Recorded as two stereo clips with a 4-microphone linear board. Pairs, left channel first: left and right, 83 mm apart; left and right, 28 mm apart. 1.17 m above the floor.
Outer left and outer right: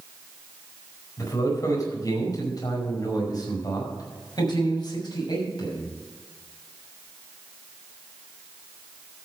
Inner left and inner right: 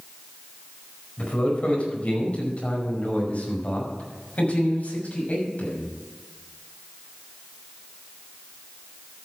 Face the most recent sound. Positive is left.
turn(degrees=60)  # may be behind; listen again after turning